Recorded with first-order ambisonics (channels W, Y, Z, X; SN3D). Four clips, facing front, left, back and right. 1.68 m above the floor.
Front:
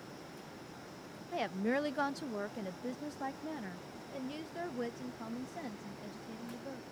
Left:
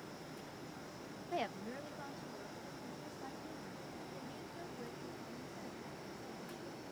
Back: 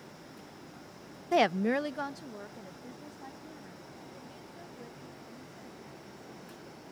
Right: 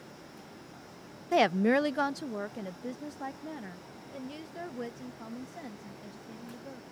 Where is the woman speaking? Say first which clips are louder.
Right 17 dB, back 8 dB; 140° right; by 6.8 s 40° right.